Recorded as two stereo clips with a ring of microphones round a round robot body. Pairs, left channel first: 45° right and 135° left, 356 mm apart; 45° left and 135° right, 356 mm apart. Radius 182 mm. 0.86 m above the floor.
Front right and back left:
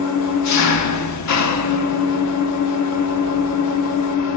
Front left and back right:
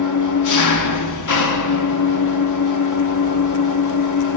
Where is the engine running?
Straight ahead, 1.0 m.